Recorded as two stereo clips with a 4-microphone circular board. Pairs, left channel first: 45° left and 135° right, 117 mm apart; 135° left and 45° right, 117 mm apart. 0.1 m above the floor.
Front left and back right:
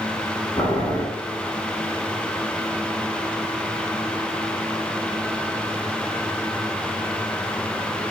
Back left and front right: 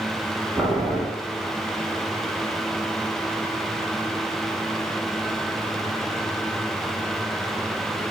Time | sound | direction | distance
0.6 | boiling | 30° left | 0.9 m